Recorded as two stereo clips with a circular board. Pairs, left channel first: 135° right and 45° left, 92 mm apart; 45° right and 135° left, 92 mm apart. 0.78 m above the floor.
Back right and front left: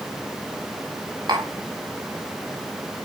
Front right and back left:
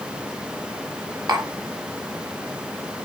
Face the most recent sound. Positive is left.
turn(degrees=90)